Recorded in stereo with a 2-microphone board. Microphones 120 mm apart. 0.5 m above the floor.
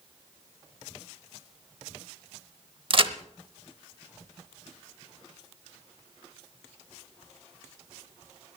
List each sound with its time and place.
2.9 s a crack: 45° right (ahead or behind), 0.7 m